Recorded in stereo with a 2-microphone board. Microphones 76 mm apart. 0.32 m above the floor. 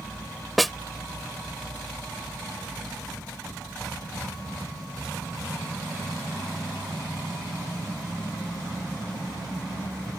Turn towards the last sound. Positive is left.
turn(degrees=0)  # may be behind; listen again after turning